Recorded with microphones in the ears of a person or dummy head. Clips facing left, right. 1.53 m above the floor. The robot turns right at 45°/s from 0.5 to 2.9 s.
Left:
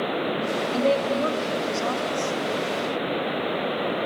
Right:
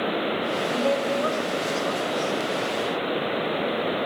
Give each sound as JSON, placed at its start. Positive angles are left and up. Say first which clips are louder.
{"t": 0.7, "sound": "a woman speaking", "louder": "left 2 dB", "azimuth_deg": 30, "distance_m": 2.0}